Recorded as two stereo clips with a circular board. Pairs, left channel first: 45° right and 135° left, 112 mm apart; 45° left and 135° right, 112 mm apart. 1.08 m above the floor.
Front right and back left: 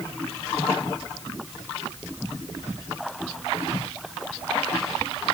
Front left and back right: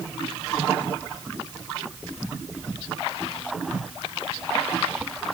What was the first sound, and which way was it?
Only background noise.